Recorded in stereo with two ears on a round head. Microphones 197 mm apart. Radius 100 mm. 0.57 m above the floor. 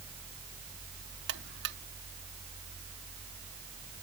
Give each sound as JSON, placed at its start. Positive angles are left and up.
{"t": 1.3, "sound": "a buzzer", "side_deg": -50}